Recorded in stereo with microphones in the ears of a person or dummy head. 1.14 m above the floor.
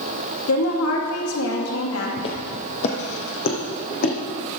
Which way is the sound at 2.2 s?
30° left (ahead or behind).